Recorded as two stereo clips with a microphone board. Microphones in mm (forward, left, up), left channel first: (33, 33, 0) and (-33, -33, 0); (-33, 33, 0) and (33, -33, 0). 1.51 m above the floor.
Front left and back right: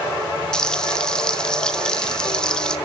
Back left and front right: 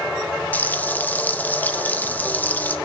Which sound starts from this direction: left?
Frying, at 0.5 s.